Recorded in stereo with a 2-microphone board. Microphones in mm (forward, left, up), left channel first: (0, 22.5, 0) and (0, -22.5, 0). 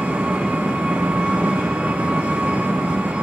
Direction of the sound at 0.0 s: 30° right (ahead or behind).